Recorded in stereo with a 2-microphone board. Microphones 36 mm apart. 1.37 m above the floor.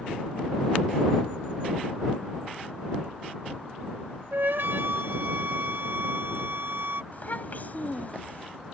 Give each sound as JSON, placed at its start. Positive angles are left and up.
{"t": 4.3, "sound": "a flute", "side_deg": -70}
{"t": 7.1, "sound": "a child speaking", "side_deg": 45}